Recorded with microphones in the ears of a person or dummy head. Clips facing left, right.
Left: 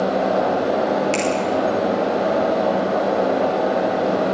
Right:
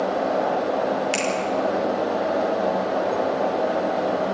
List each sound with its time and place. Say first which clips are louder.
1.1 s a finger snap: left 4 dB; 10° right (ahead or behind), 4.5 m